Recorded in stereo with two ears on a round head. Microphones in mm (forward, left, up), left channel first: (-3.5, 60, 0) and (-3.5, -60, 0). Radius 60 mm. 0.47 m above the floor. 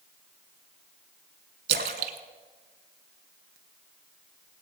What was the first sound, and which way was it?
A splash, 75° right (ahead or behind).